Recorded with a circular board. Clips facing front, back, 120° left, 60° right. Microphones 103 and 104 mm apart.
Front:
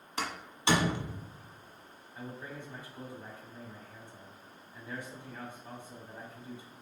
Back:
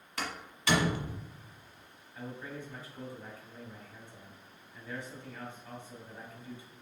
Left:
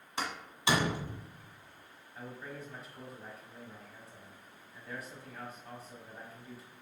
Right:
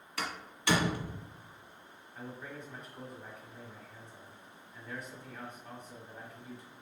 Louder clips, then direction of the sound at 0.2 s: Front 2 dB, left 1 dB; 60° left.